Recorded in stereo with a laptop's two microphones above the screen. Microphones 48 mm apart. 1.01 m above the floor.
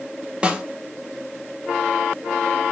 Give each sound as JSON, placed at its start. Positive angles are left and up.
{"t": 0.4, "sound": "a snare drum", "side_deg": -20, "distance_m": 0.6}